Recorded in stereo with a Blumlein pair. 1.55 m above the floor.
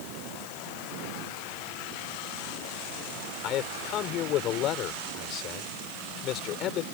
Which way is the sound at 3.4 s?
35° left.